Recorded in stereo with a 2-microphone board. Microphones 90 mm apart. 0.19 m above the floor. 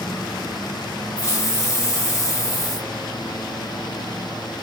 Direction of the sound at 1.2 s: 35° left (ahead or behind).